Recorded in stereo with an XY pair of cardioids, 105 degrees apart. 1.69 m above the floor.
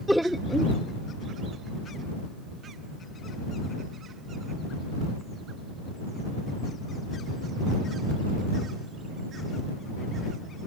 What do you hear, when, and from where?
0.1 s laughter: straight ahead